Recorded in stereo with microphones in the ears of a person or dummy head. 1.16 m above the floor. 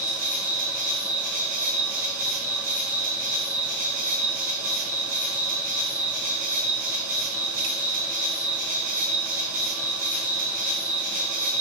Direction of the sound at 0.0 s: 40° right (ahead or behind).